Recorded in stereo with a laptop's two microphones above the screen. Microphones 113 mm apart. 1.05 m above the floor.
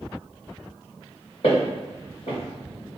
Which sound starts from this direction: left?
Footsteps, at 1.4 s.